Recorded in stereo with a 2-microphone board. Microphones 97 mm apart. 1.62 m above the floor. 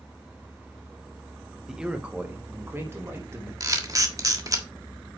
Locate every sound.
1.7 s a man speaking: 5° right (ahead or behind), 1.3 m; by 3.5 s 30° right (ahead or behind), 3 m
3.6 s a camera shutter: 35° right (ahead or behind), 1.4 m